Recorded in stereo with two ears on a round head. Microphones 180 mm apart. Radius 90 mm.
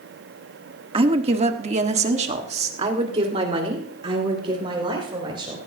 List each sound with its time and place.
0.9 s a woman speaking: 25° right (ahead or behind), 1.2 m